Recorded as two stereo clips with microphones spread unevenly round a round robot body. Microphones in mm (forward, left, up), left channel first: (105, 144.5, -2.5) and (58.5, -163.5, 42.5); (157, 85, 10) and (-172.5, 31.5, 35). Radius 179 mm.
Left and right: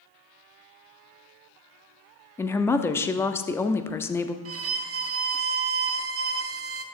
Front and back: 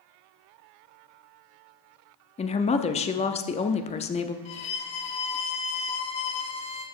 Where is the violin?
55° right, 0.7 m.